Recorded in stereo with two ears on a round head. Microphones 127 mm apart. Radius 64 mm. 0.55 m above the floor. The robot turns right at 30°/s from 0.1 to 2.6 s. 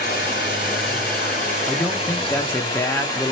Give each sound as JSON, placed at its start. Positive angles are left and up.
{"t": 0.0, "sound": "running water", "azimuth_deg": 75, "distance_m": 3.0}
{"t": 1.7, "sound": "a man speaking", "side_deg": 5, "distance_m": 0.6}